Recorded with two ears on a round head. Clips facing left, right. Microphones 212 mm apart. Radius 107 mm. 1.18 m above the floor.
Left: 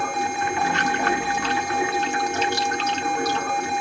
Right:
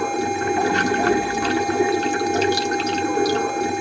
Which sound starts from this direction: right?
Running water, at 0.0 s.